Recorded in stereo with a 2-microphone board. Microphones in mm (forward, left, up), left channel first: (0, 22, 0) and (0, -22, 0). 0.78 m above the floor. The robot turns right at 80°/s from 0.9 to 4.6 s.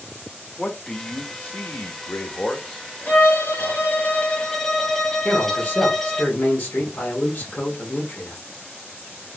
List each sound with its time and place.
0.6 s a man speaking: 20° left (ahead or behind), 0.7 m; by 3.8 s 55° right (ahead or behind), 0.7 m
3.1 s a violin: 50° left, 0.6 m; by 6.2 s 170° left, 0.6 m
5.2 s a man speaking: 45° left (ahead or behind), 1.0 m